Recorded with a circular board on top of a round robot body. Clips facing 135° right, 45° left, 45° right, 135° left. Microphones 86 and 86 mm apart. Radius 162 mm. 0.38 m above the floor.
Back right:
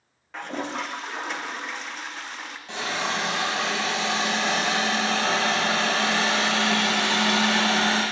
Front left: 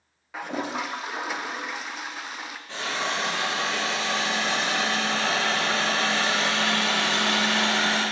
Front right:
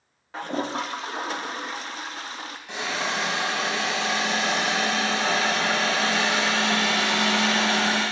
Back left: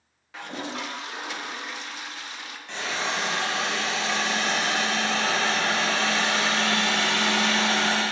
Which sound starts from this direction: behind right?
A hiss, at 2.7 s.